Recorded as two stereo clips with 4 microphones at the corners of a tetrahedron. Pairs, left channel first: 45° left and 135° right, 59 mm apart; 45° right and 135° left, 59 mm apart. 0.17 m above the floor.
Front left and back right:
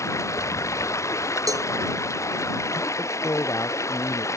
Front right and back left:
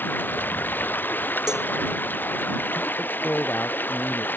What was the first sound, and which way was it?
Running water, 10° left.